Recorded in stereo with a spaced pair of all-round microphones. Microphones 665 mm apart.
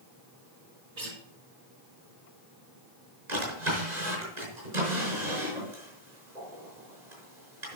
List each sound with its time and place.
1.0 s a guitar: 80° right, 3.5 m
3.3 s a drawer: 80° right, 5 m